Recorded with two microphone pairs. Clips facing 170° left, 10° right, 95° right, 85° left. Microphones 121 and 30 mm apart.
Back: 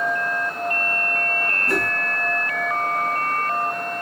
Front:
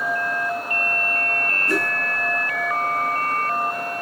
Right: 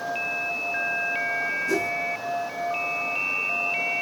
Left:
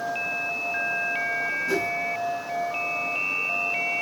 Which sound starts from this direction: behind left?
A whoosh, at 1.7 s.